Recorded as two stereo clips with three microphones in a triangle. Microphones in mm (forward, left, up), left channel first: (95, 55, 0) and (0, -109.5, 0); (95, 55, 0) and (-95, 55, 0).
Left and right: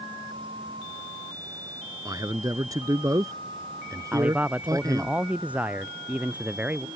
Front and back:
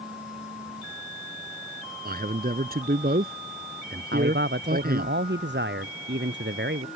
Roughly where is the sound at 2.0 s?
Behind.